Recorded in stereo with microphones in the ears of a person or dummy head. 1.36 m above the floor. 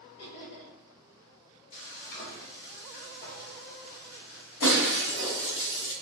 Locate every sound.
0.2 s laughter: 75° left (ahead or behind), 1.1 m
1.7 s frying: 55° left (ahead or behind), 1.0 m
4.6 s breaking glass: 65° left (ahead or behind), 1.7 m